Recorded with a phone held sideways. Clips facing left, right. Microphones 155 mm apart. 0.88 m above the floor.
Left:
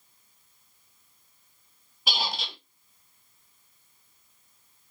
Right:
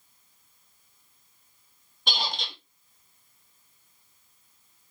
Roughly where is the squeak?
Centre.